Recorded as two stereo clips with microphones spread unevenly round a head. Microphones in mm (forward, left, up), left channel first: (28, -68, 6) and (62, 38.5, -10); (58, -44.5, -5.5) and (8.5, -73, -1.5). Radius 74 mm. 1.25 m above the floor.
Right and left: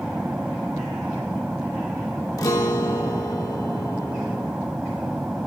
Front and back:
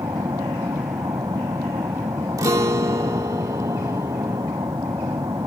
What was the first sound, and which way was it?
An aircraft, 160° left.